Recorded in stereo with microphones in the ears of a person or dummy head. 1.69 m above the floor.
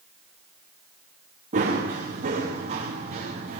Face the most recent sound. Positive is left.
turn(degrees=-40)  # may be behind; listen again after turning